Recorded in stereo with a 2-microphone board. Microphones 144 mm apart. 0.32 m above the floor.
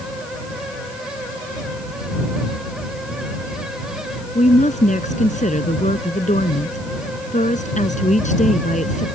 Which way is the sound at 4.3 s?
60° left (ahead or behind).